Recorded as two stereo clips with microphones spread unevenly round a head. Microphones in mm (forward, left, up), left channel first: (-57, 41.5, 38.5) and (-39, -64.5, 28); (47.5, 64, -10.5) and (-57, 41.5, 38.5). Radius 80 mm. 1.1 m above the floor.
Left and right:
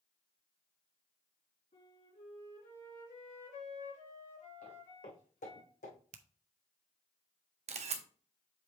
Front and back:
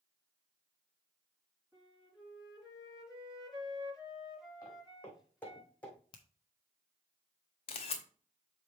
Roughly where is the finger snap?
Ahead right.